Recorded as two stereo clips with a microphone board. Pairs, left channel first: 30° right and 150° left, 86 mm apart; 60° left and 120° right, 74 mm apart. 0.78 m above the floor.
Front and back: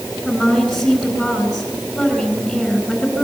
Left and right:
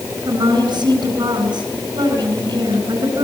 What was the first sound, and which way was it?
A woman speaking, 120° right.